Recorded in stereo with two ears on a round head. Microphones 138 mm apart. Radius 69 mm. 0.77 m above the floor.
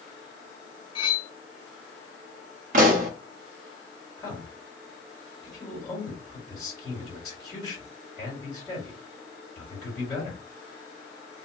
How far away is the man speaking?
About 1.8 m.